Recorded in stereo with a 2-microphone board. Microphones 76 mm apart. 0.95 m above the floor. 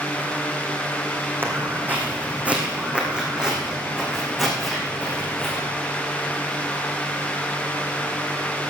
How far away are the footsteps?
About 3 m.